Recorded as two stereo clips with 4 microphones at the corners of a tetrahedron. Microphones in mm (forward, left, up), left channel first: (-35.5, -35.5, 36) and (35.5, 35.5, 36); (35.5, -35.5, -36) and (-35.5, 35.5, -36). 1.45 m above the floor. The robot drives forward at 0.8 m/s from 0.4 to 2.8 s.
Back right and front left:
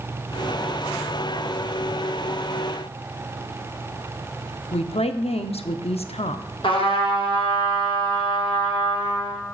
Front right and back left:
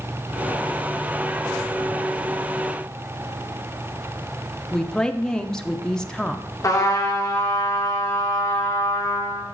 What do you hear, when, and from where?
4.7 s a woman speaking: 130° right, 0.5 m
6.6 s a trumpet: 105° right, 1.4 m